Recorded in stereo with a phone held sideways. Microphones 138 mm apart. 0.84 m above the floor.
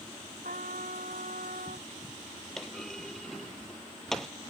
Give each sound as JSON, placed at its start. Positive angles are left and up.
{"t": 0.4, "sound": "a trumpet", "side_deg": -85}
{"t": 2.6, "sound": "a clunk", "side_deg": 0}